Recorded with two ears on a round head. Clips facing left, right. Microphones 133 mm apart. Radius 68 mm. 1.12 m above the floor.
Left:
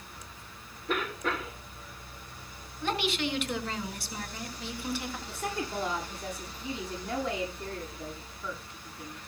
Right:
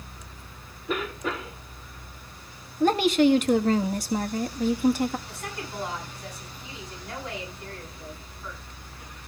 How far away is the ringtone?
No ringtone in this recording.